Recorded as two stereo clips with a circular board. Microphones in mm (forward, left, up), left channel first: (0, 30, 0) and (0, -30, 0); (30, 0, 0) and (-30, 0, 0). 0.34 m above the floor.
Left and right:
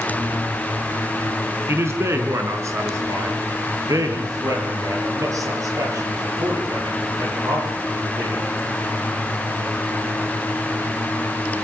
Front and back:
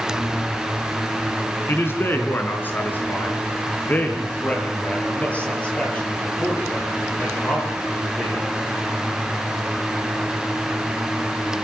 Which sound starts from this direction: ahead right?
A man speaking, at 1.7 s.